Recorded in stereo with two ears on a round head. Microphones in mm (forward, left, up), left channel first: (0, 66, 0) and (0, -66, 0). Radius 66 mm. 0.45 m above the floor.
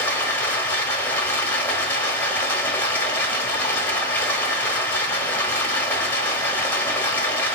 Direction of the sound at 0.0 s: 15° left (ahead or behind).